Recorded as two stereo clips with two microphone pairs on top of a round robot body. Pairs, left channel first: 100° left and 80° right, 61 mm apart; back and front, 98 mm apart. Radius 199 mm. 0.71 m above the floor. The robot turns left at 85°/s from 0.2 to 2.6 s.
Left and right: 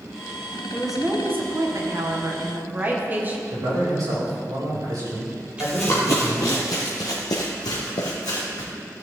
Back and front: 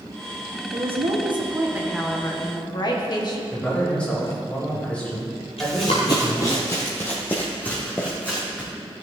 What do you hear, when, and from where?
0.7 s a woman speaking: 20° left, 2 m; by 3.4 s 140° right, 2 m
3.5 s a man speaking: 100° right, 4 m
5.6 s running footsteps: 150° right, 0.7 m; by 8.7 s 105° left, 2.5 m